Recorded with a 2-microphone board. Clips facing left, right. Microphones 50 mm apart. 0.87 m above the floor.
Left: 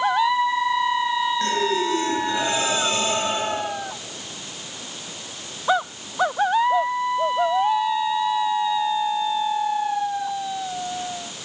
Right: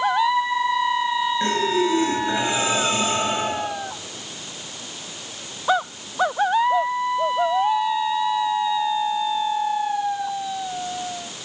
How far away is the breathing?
About 7.5 m.